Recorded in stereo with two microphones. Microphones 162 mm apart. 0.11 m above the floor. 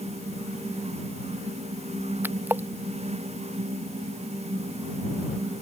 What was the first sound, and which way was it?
A splash, 10° right (ahead or behind).